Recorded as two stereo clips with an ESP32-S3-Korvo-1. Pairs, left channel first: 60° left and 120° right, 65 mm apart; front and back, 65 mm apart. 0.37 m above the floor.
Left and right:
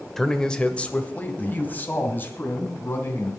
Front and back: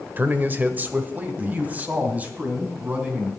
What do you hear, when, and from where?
0.2 s a man speaking: 140° left, 0.9 m; by 3.3 s 110° left, 2.5 m